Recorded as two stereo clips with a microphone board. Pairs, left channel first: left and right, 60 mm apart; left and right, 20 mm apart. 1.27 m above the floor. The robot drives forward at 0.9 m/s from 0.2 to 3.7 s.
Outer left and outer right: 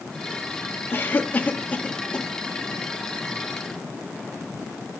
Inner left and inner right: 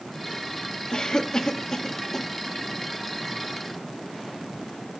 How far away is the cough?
About 1.4 m.